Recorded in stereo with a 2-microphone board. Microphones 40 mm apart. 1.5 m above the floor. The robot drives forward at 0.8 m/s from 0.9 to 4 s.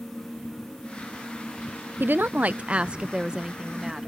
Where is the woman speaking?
55° right (ahead or behind); by 4.1 s 15° right (ahead or behind).